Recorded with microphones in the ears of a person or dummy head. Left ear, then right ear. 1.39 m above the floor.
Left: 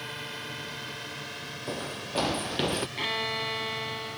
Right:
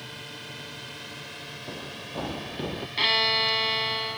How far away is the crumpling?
No crumpling in this recording.